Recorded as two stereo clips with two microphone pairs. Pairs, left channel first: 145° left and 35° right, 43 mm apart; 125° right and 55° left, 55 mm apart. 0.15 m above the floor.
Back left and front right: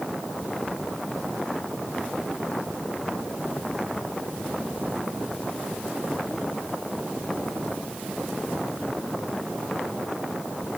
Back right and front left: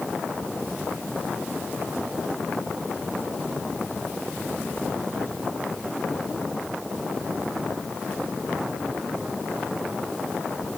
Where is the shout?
No shout in this recording.